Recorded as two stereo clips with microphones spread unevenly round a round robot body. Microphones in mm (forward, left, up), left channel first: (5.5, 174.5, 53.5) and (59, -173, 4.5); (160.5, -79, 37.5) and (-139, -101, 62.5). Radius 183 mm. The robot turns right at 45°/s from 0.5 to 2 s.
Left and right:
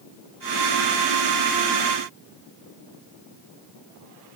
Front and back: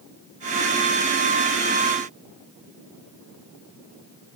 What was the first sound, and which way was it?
Only background noise.